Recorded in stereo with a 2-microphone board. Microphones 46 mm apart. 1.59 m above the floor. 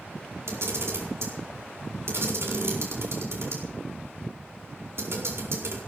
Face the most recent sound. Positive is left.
turn(degrees=-65)  # may be behind; listen again after turning